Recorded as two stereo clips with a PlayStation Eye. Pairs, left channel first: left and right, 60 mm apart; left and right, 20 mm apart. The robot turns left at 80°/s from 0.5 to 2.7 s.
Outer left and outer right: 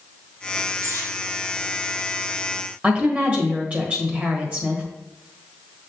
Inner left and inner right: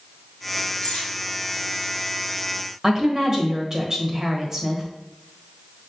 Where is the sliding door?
No sliding door in this recording.